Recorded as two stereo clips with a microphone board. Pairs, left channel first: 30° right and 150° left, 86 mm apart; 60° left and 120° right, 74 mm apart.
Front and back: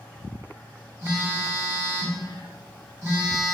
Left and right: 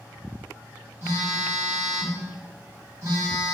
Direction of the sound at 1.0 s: 160° right.